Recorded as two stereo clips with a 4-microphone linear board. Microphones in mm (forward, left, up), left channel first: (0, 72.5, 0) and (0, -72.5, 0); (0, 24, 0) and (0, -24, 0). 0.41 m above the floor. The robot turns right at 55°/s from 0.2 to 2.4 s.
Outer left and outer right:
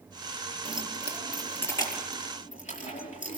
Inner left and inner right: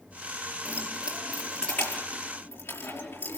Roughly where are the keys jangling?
Right.